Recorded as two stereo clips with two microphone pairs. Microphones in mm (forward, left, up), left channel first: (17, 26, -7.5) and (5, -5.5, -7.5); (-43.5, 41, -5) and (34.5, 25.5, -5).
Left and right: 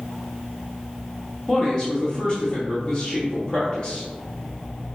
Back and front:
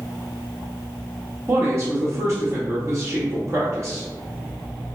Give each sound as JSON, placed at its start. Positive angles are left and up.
{"t": 1.5, "sound": "a man speaking", "azimuth_deg": 15, "distance_m": 0.9}